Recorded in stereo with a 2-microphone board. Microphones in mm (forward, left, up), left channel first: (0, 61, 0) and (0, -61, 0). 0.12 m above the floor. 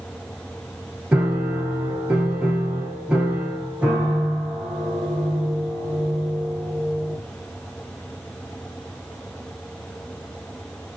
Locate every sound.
1.1 s a piano: 10° right (ahead or behind), 3.5 m